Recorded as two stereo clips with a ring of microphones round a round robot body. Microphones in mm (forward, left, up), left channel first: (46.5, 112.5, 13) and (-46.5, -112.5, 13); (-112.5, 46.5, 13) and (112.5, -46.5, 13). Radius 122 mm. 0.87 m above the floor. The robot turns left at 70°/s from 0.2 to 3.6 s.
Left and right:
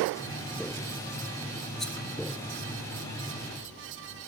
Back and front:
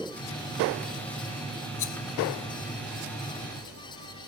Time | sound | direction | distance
1.8 | a rattle | 160° left | 0.6 m